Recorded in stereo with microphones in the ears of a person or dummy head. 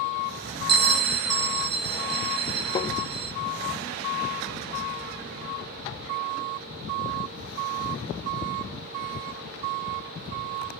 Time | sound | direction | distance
0.7 | a bell | 50° right (ahead or behind) | 0.6 m
2.8 | tapping | 25° left (ahead or behind) | 1.1 m